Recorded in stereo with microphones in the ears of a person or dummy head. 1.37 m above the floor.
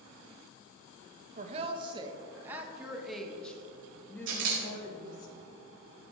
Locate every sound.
1.4 s a woman speaking: 40° right (ahead or behind), 1.3 m; by 5.3 s 25° left (ahead or behind), 2.5 m
4.3 s a camera shutter: 70° right (ahead or behind), 3.5 m